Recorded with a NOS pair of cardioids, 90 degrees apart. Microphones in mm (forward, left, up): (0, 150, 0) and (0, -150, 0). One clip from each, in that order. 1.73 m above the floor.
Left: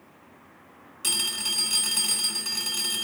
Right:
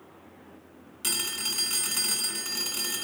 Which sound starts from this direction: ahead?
A phone ringing, at 1.0 s.